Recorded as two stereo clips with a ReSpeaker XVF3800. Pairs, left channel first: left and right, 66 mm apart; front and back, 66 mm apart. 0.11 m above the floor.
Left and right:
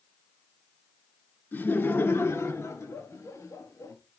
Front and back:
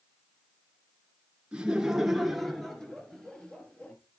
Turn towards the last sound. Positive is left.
turn(degrees=70)